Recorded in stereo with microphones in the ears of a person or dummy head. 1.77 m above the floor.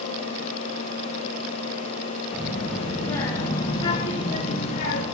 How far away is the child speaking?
About 2 m.